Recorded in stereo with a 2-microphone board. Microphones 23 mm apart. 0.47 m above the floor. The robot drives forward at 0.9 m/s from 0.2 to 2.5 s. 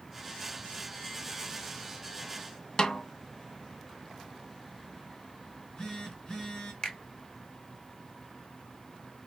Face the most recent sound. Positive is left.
turn(degrees=40)  # may be behind; listen again after turning